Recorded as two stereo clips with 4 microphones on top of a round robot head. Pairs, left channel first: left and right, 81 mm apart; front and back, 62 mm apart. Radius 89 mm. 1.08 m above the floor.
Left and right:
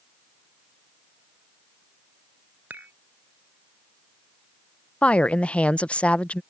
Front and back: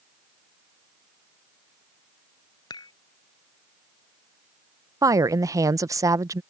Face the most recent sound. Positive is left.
turn(degrees=165)